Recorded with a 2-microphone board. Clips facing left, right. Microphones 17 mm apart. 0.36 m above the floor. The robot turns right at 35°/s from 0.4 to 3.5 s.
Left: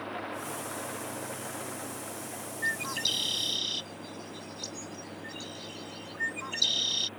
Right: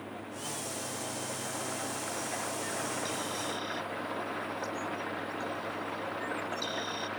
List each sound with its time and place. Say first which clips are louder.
0.0 s an engine running: left 4 dB; 140° left; by 7.2 s 110° right
2.6 s a bird: left 4 dB; 70° left (ahead or behind); by 7.1 s 50° left (ahead or behind)